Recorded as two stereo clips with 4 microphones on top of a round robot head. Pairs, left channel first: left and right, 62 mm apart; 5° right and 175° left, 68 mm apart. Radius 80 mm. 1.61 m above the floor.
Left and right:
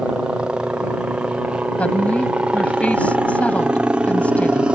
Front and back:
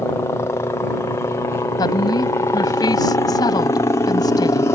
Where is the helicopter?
20° right.